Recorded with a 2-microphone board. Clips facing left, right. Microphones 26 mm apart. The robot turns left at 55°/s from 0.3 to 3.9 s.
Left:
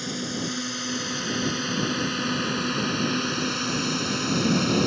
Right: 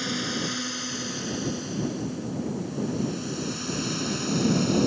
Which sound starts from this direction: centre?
A drone, at 0.0 s.